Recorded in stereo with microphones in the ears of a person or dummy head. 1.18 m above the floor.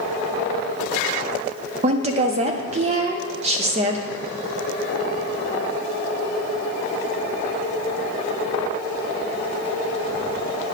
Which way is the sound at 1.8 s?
30° right (ahead or behind).